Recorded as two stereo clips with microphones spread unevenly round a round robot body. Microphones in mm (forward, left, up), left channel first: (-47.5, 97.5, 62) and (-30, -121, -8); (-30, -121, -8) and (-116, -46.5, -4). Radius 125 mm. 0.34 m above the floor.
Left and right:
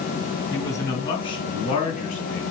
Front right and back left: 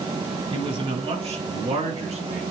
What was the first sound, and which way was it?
A man speaking, 175° left.